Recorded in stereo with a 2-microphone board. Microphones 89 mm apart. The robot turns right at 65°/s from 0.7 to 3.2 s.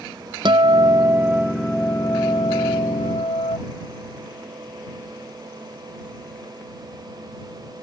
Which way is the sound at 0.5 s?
55° right.